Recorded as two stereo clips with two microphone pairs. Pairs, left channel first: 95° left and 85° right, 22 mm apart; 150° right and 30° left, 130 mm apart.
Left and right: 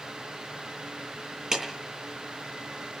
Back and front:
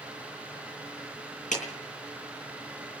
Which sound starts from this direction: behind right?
A clap, at 1.5 s.